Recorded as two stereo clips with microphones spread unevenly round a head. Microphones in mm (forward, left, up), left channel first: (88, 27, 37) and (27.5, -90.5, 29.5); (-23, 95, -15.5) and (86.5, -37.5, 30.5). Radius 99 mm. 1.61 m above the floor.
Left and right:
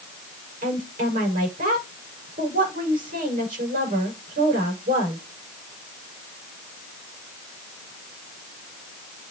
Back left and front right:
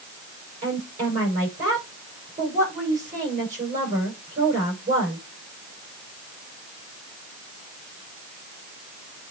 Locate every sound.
0.6 s a woman speaking: 100° right, 7 m